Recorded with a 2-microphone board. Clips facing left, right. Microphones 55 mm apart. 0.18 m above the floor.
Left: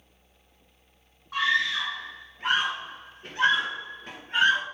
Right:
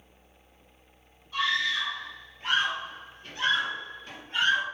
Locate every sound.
1.3 s a scream: 55° left (ahead or behind), 2.5 m